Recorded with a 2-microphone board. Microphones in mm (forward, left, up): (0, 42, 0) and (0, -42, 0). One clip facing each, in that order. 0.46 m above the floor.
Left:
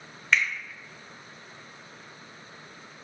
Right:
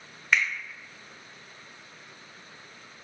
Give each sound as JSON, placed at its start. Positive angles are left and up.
{"t": 0.3, "sound": "a finger snap", "side_deg": -10, "distance_m": 0.8}